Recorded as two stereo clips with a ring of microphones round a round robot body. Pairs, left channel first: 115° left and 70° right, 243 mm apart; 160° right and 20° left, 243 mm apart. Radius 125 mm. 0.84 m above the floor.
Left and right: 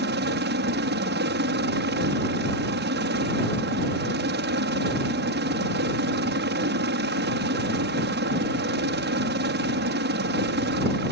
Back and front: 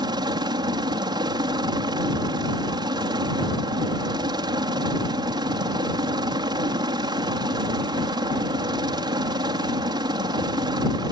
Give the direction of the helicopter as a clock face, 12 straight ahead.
1 o'clock.